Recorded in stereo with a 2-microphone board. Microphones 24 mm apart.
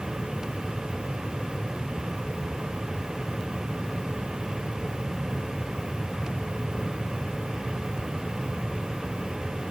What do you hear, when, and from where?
Only background noise.